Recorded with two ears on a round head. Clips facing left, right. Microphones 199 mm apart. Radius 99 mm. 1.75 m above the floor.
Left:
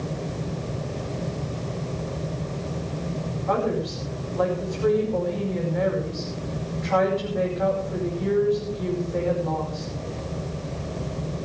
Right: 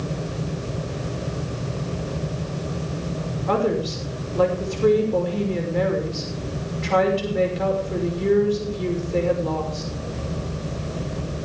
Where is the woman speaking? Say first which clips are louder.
Right 3 dB; 40° right (ahead or behind), 5.5 m.